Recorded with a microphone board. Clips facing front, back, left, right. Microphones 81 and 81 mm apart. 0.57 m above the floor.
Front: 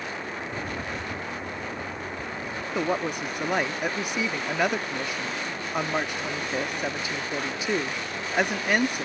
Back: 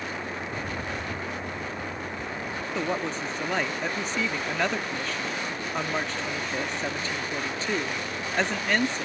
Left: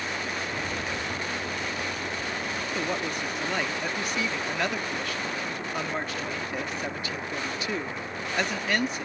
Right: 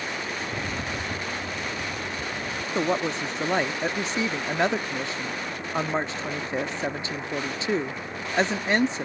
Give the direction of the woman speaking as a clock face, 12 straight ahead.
2 o'clock.